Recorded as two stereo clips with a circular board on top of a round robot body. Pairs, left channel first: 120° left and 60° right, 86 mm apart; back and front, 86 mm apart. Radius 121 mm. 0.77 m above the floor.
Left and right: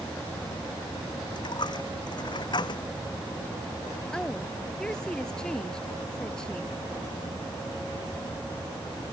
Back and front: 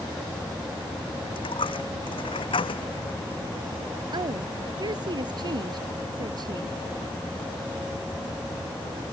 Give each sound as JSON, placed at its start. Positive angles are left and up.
{"t": 1.3, "sound": "a dropped coin", "azimuth_deg": 155}
{"t": 4.1, "sound": "a woman speaking", "azimuth_deg": 40}